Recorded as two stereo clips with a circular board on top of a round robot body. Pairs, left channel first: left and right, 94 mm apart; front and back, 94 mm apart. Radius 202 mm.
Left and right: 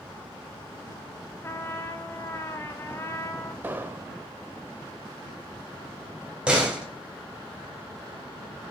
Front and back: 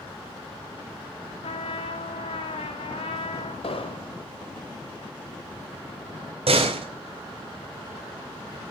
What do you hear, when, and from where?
1.4 s a trumpet: 25° left, 0.6 m
3.6 s an explosion: 20° right, 1.9 m
6.5 s a door slam: 170° right, 4 m